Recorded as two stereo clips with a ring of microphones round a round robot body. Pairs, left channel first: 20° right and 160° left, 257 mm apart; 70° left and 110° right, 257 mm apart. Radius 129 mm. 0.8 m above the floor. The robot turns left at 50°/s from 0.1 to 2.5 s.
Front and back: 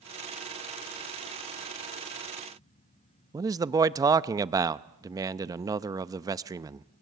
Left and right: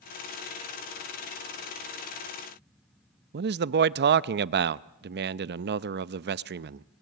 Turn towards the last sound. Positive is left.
turn(degrees=-130)